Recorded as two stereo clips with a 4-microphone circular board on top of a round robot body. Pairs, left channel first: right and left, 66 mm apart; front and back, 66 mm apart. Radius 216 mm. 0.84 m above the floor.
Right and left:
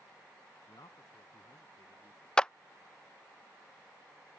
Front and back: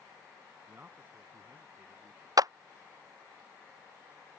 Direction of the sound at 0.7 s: 115° right.